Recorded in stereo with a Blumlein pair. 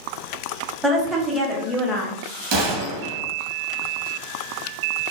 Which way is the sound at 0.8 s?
5° right.